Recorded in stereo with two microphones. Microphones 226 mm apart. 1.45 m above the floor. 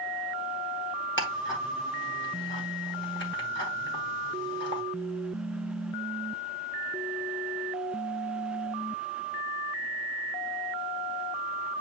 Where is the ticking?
55° left (ahead or behind), 1.9 m.